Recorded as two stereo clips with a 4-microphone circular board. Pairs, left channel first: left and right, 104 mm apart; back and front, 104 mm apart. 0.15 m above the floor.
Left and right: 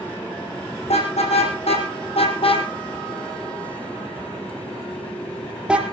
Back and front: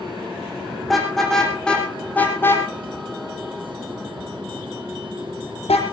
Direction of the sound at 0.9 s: 90° left.